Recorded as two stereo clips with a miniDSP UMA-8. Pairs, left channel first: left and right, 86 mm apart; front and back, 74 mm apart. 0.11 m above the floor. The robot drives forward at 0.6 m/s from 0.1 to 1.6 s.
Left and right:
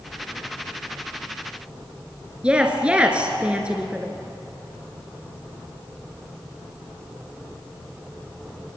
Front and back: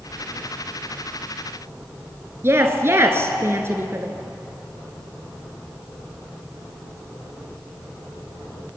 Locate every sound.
2.4 s a woman speaking: 160° right, 1.5 m